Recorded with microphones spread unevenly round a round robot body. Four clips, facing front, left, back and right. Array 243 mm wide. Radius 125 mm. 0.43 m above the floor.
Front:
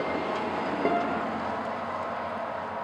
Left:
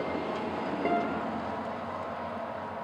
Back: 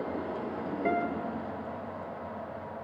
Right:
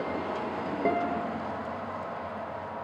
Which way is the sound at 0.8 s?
10° right.